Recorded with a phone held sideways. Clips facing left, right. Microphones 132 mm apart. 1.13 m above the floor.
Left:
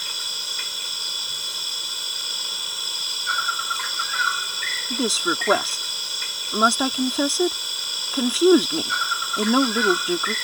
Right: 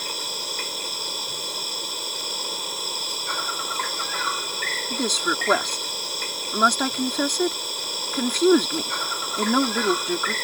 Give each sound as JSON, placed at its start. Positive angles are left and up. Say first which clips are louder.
{"t": 0.0, "sound": "an insect", "louder": "right 7 dB", "side_deg": -50}
{"t": 4.9, "sound": "a woman speaking", "louder": "left 2 dB", "side_deg": 10}